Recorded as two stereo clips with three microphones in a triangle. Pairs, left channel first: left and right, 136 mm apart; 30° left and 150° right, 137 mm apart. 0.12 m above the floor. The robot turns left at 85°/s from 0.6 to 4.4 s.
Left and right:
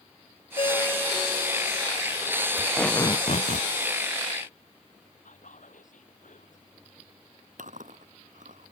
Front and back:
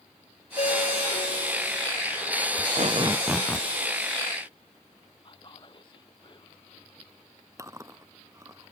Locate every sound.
0.6 s a ringtone: 50° left; by 1.9 s 60° right
2.6 s tape being pulled: 165° right; by 3.7 s 100° left
5.2 s whispering: 80° left
7.6 s chewing: 85° right